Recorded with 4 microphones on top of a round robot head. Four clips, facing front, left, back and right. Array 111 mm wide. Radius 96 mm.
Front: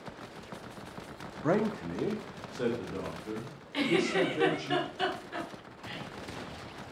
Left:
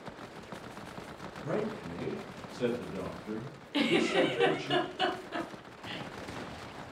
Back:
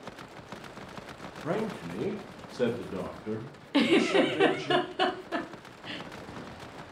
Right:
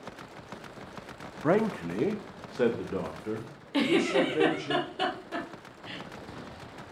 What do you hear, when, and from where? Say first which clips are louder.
1.4 s a man speaking: right 9 dB, front 3 dB; 65° right, 0.8 m; by 4.7 s 120° right, 3 m
3.7 s a giggle: right 3 dB, back 5 dB; 170° right, 1.1 m